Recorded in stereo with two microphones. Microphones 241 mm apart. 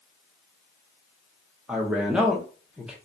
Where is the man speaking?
5° right (ahead or behind), 0.7 m.